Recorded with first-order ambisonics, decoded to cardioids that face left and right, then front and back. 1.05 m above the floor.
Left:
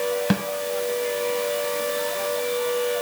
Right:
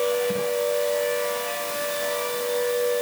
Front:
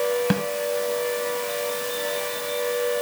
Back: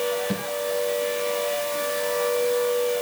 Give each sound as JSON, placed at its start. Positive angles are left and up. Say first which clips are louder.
{"t": 0.3, "sound": "a snare drum", "louder": "even, front 5 dB", "azimuth_deg": 55, "distance_m": 2.0}